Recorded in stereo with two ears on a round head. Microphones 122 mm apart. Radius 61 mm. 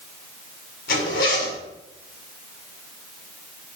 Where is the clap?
I don't hear a clap.